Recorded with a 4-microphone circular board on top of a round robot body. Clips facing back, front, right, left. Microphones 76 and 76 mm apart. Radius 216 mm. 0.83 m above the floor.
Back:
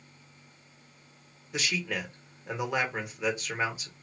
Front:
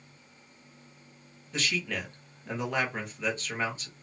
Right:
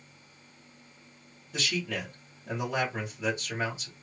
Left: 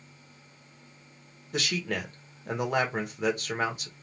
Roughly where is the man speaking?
Left.